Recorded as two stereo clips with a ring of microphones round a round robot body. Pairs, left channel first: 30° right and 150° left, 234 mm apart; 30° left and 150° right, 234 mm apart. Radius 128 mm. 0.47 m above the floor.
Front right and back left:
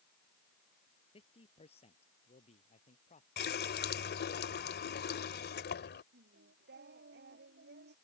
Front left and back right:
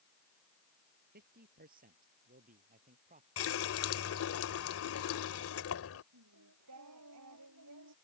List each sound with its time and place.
1.1 s a man speaking: 95° right; by 3.3 s 90° right
3.4 s a running tap: 15° left
6.1 s singing: 165° right